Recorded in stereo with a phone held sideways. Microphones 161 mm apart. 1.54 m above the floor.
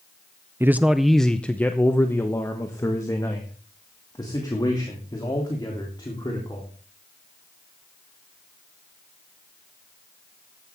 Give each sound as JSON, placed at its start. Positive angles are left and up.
{"t": 0.6, "sound": "a man speaking", "side_deg": -15, "distance_m": 0.5}